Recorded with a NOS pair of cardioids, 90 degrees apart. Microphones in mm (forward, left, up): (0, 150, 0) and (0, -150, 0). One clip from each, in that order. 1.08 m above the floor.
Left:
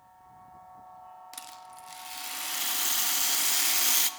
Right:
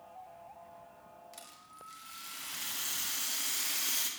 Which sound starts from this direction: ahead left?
A rattle, at 1.3 s.